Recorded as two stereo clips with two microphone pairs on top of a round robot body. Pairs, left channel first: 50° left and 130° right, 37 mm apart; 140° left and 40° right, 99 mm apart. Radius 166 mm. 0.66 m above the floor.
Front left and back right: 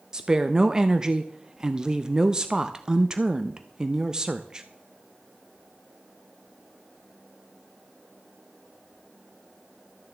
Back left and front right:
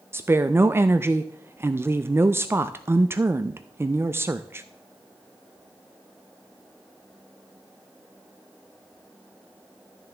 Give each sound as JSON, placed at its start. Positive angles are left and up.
{"t": 0.1, "sound": "a woman speaking", "azimuth_deg": -65, "distance_m": 0.6}